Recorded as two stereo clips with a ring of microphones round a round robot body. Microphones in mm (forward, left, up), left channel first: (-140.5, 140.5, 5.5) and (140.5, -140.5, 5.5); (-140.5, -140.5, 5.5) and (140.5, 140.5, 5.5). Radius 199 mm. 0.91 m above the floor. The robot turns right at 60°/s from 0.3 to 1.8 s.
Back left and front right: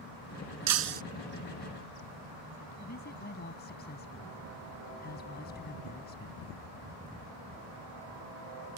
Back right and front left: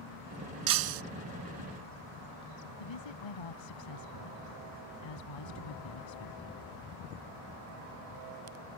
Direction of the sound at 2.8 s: 160° right.